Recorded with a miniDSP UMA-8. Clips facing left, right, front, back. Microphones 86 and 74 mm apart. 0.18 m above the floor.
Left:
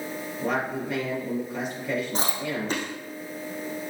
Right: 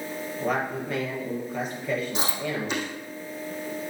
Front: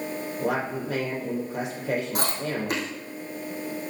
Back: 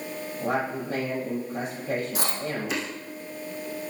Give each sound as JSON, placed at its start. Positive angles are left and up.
{"t": 0.4, "sound": "a man speaking", "azimuth_deg": 5, "distance_m": 5.5}
{"t": 2.1, "sound": "chewing", "azimuth_deg": 40, "distance_m": 4.0}